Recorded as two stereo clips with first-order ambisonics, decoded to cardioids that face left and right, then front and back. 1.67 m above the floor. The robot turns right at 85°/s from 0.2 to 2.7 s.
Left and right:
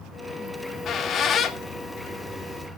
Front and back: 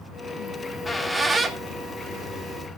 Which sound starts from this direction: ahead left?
A squeak, at 0.5 s.